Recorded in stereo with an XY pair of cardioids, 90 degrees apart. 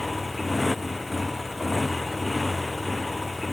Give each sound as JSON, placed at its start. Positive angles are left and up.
{"t": 0.0, "sound": "a motorcycle", "azimuth_deg": 15}